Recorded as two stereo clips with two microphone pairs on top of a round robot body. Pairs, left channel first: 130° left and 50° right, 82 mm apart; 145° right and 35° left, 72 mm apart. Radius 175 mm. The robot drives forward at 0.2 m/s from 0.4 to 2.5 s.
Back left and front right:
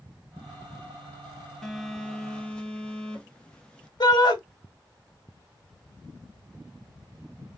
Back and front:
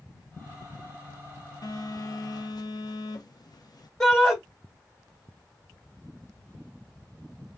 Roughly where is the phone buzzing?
Behind right.